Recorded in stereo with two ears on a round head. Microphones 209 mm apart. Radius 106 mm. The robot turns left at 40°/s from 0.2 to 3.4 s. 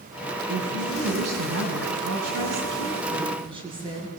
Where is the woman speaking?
40° right, 9 m; by 4.1 s 155° right, 9 m.